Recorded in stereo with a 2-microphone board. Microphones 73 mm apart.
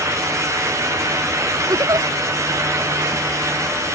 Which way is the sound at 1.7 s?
60° right (ahead or behind).